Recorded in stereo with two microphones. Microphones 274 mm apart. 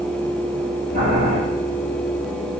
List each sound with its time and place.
0.9 s boiling: 75° right (ahead or behind), 3.5 m